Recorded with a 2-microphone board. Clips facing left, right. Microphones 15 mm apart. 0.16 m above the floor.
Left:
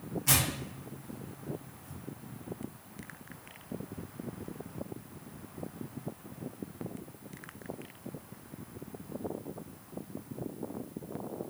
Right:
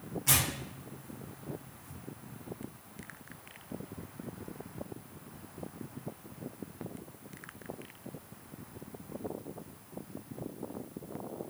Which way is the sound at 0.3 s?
5° right (ahead or behind).